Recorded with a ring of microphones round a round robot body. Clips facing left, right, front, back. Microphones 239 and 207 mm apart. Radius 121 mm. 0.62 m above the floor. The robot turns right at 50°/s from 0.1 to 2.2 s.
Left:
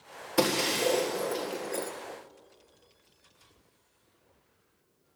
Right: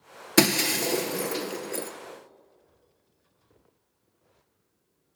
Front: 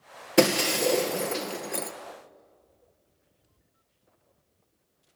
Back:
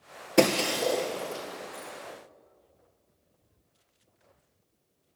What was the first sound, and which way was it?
Breaking glass, 90° right.